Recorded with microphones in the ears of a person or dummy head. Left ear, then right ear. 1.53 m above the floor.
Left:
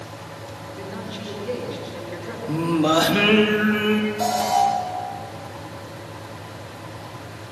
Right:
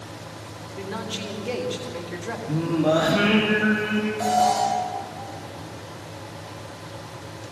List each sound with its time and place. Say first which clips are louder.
0.8 s a man speaking: right 4 dB; 35° right (ahead or behind), 3 m
2.5 s singing: left 2 dB; 85° left, 3 m
4.2 s an alarm: right 1 dB; 20° left (ahead or behind), 5.5 m